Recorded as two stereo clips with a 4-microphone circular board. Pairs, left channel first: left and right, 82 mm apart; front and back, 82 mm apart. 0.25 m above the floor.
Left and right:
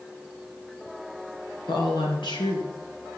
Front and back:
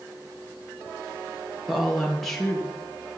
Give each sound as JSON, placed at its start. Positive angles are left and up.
{"t": 1.7, "sound": "a woman speaking", "azimuth_deg": 90, "distance_m": 4.5}